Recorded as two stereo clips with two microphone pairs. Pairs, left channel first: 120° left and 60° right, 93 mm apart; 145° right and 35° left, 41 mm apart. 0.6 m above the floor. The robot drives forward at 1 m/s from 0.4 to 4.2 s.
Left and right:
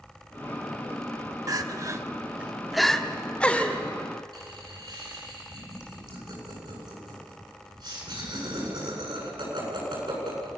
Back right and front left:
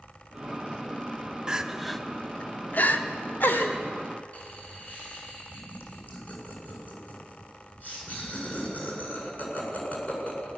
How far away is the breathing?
I don't hear breathing.